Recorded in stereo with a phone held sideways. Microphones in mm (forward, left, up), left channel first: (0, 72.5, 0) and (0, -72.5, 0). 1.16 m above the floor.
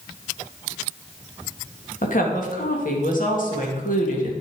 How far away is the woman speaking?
About 2 m.